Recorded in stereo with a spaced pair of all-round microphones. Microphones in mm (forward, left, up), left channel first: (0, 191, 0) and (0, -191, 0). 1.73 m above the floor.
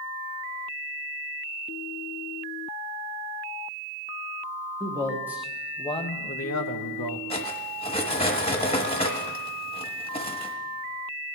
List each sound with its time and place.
4.8 s a man speaking: 10° right (ahead or behind), 2 m; by 7.2 s 80° left, 1.0 m
7.3 s cutlery clinking: 15° left (ahead or behind), 1.3 m